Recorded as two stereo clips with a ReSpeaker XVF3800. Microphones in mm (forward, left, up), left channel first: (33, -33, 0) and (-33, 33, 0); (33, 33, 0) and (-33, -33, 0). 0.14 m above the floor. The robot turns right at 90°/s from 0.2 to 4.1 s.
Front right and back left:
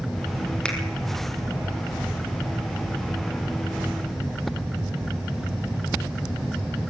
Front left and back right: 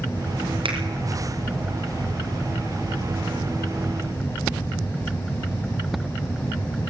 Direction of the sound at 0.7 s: 125° right.